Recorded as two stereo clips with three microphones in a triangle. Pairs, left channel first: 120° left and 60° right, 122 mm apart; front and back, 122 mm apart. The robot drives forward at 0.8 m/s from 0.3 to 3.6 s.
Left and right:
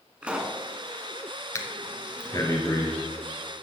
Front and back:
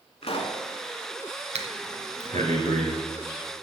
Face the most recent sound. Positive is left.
turn(degrees=180)